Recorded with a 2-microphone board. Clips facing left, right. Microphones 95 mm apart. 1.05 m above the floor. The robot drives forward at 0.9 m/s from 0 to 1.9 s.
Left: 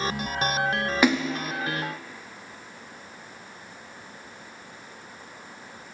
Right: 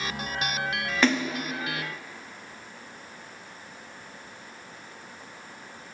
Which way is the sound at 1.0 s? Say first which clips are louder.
Left 1 dB; 10° left (ahead or behind).